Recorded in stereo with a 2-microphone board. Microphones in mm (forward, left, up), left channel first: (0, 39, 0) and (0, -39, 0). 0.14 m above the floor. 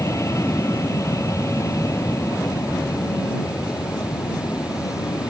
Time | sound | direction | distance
0.0 | an aircraft | 40° left (ahead or behind) | ?